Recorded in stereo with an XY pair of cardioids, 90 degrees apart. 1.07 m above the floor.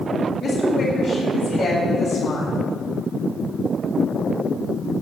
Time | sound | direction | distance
0.4 | a woman speaking | 50° left | 7.5 m